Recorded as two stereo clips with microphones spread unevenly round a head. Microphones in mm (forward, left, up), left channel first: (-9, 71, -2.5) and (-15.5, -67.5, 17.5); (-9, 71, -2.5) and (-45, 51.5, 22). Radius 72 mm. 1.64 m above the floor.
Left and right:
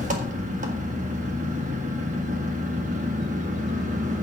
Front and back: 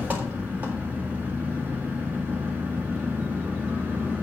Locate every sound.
0.0 s an engine running: 120° right, 1.7 m